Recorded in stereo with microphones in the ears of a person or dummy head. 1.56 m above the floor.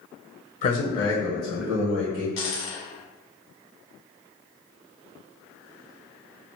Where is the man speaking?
45° left (ahead or behind), 0.8 m; by 2.3 s 25° right (ahead or behind), 1.4 m.